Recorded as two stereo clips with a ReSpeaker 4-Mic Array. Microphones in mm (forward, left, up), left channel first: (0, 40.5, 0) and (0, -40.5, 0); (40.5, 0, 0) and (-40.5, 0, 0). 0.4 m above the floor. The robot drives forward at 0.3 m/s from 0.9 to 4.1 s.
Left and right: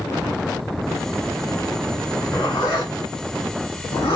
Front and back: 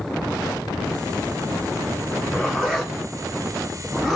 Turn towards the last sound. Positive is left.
turn(degrees=90)